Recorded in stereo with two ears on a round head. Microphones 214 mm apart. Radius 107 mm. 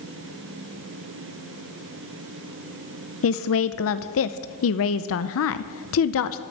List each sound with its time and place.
3.2 s a woman speaking: 60° left (ahead or behind), 0.6 m